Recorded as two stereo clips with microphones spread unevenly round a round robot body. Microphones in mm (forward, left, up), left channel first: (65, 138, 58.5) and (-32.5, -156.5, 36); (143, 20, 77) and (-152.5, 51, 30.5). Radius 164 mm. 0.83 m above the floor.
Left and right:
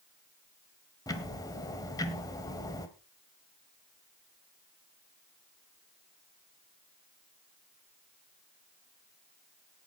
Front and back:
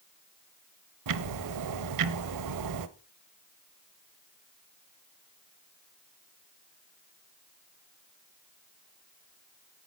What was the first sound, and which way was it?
Ticking, 150° left.